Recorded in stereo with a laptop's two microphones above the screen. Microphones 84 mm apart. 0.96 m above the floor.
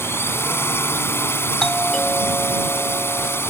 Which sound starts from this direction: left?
A drone, at 0.0 s.